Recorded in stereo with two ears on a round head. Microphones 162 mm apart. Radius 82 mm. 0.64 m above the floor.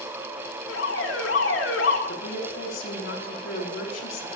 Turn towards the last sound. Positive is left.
turn(degrees=80)